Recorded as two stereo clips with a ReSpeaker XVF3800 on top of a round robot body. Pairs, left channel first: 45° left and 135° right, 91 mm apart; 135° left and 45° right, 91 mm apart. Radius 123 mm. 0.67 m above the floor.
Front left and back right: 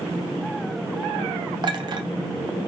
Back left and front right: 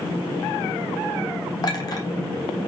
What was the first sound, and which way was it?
A clink, 175° right.